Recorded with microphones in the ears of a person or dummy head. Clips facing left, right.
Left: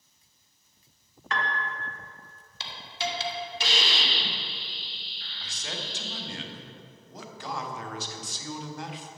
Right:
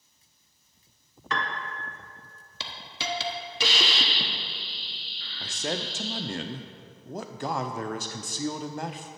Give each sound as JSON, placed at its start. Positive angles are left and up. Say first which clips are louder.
{"t": 1.3, "sound": "a piano", "louder": "even", "side_deg": -85, "distance_m": 1.0}
{"t": 2.6, "sound": "a hiss", "louder": "left 3 dB", "side_deg": -65, "distance_m": 1.1}
{"t": 5.4, "sound": "a man speaking", "louder": "right 8 dB", "side_deg": -45, "distance_m": 0.6}